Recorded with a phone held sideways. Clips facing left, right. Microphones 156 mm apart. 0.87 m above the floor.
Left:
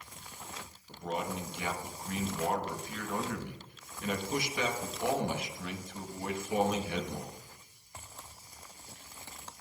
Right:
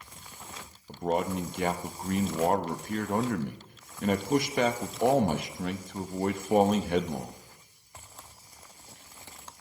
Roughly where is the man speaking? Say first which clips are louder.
Right 7 dB; right.